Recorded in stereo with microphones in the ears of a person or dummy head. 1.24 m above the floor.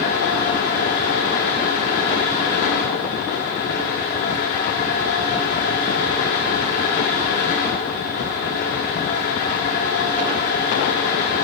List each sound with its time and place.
0.0 s a fan: 45° left (ahead or behind), 1.0 m